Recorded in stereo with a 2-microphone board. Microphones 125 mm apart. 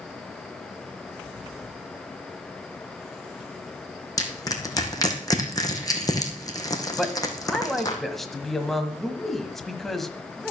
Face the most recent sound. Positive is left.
turn(degrees=0)  # may be behind; listen again after turning